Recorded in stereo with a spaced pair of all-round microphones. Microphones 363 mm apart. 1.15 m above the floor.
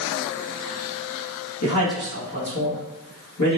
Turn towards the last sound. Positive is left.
turn(degrees=50)  # may be behind; listen again after turning